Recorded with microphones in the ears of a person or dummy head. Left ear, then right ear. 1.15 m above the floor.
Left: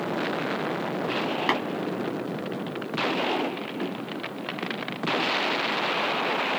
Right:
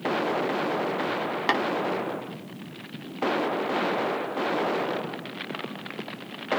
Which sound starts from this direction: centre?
Tapping, at 1.5 s.